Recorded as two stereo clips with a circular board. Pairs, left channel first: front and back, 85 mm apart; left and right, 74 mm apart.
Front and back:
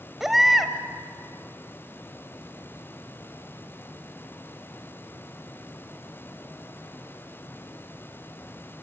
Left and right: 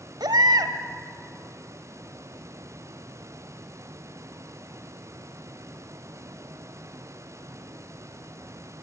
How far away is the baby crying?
About 1.3 m.